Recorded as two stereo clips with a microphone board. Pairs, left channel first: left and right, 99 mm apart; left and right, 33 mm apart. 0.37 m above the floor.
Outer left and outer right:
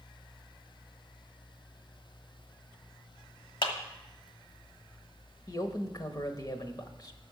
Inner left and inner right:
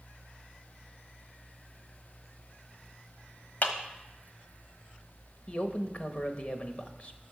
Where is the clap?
55° left (ahead or behind), 1.3 m.